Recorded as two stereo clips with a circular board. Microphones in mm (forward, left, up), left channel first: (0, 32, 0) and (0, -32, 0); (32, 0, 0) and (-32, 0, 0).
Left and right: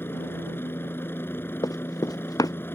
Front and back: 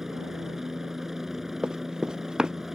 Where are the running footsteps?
105° left.